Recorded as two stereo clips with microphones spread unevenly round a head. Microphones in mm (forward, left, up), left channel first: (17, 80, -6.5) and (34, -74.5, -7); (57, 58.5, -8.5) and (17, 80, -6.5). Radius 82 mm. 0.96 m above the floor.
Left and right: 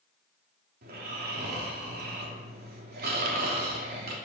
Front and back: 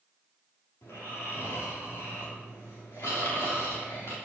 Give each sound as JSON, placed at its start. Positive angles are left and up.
{"t": 0.8, "sound": "snoring", "azimuth_deg": -60, "distance_m": 2.5}